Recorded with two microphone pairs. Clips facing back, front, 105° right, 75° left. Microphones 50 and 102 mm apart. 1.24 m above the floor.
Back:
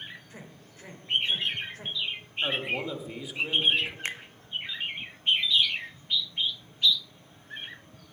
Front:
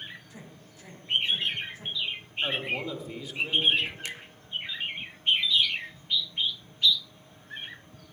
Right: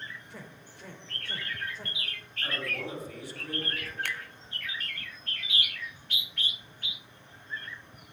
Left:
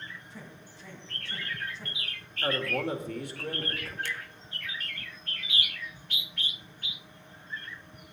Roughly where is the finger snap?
Behind right.